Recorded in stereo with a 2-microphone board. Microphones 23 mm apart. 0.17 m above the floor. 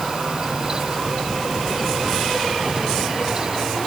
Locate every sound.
Only background noise.